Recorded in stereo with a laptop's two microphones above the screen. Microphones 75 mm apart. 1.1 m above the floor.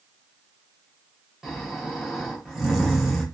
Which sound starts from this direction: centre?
Snoring, at 1.4 s.